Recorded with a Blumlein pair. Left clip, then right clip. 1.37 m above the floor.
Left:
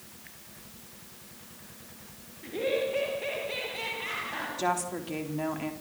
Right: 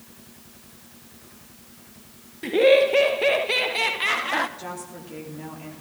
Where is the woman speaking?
65° left, 3.5 m.